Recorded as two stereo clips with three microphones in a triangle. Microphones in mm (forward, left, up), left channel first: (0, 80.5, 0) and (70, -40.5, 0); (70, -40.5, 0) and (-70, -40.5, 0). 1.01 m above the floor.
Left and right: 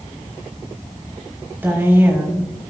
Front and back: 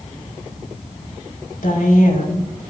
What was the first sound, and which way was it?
A woman speaking, 15° left.